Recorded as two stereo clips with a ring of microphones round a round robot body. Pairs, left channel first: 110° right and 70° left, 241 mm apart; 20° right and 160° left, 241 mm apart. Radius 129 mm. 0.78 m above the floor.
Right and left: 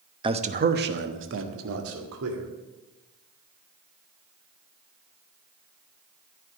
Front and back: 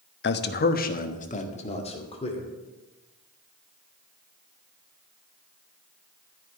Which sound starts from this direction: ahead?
A man speaking, at 0.2 s.